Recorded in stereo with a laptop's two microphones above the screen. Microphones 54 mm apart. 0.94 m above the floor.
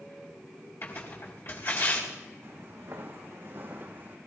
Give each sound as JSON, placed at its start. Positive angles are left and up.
{"t": 0.8, "sound": "tearing paper", "side_deg": 50, "distance_m": 4.5}
{"t": 2.4, "sound": "footsteps", "side_deg": -55, "distance_m": 4.0}